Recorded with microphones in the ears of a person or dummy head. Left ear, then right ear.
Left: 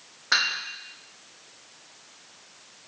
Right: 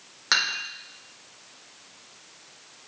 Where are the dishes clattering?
65° right (ahead or behind), 2.5 m.